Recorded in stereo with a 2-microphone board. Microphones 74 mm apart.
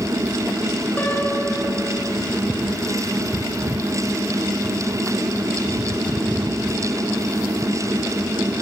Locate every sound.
1.0 s a piano: 25° left (ahead or behind), 3 m